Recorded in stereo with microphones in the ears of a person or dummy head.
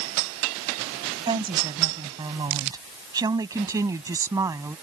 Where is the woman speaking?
25° right (ahead or behind); by 4.7 s 15° right (ahead or behind).